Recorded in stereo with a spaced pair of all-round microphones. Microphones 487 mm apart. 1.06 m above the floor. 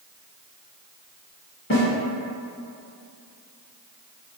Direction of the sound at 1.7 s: 25° left (ahead or behind).